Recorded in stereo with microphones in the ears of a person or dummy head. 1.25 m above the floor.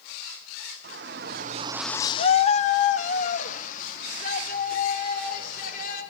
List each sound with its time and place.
0.8 s a shout: 55° right (ahead or behind), 1.5 m; by 6.0 s 55° left (ahead or behind), 6.5 m